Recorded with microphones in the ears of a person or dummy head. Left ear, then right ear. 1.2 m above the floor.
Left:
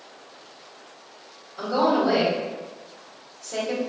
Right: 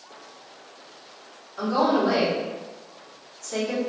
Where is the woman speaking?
55° right (ahead or behind), 1.6 m.